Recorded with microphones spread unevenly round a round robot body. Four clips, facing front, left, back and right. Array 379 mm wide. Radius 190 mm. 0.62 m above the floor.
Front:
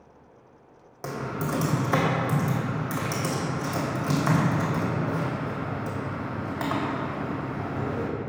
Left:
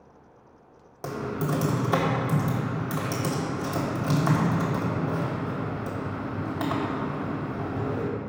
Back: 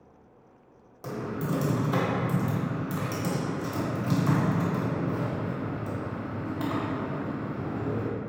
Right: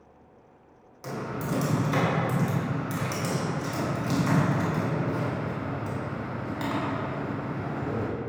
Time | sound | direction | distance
1.0 | typing on a keyboard | 55° left | 2.0 m